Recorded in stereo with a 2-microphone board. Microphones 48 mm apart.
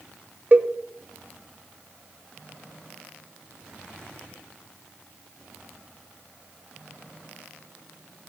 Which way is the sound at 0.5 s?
40° right (ahead or behind).